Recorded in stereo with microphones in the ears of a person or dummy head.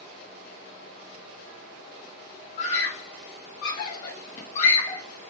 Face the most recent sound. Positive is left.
turn(degrees=20)  # may be behind; listen again after turning